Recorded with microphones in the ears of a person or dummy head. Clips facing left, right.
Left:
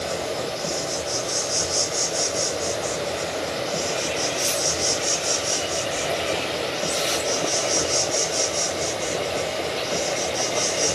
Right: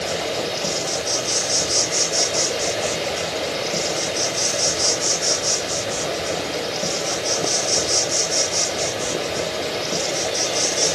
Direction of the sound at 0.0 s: 35° right (ahead or behind).